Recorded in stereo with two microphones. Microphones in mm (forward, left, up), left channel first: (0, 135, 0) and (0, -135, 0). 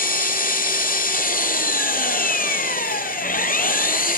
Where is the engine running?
30° left (ahead or behind), 1.0 m.